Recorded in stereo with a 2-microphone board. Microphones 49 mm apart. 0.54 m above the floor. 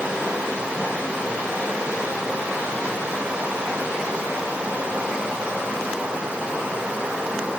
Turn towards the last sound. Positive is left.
turn(degrees=-25)  # may be behind; listen again after turning